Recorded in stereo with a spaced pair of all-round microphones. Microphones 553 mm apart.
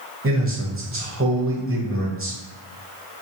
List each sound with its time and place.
0.2 s a man speaking: 25° right (ahead or behind), 0.7 m